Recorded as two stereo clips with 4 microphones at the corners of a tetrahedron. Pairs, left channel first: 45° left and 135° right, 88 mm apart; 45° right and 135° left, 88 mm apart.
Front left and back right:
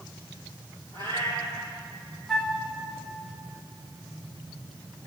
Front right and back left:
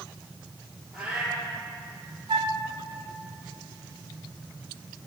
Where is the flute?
130° left, 1.1 m.